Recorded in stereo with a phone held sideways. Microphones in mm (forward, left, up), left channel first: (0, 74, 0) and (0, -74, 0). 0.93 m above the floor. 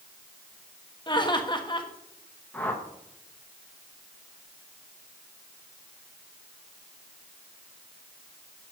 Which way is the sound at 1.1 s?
30° left (ahead or behind).